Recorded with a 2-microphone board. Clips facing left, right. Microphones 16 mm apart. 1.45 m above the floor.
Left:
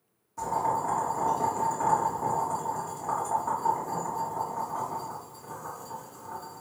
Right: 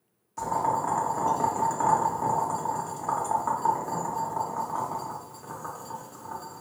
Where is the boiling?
45° right (ahead or behind), 0.9 m.